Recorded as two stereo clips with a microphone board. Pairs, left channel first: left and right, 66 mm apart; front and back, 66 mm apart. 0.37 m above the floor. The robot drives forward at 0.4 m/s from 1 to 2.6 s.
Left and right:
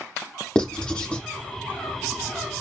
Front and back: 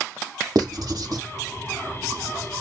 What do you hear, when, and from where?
0.6 s writing: 160° left, 0.6 m; by 1.2 s 165° left, 0.7 m